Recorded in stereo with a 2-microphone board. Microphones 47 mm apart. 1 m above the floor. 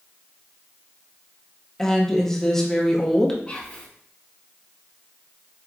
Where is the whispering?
25° left (ahead or behind), 1.5 m.